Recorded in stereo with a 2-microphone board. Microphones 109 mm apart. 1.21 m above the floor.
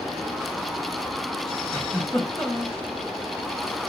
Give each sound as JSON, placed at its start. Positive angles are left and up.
{"t": 1.7, "sound": "a giggle", "side_deg": 5, "distance_m": 1.1}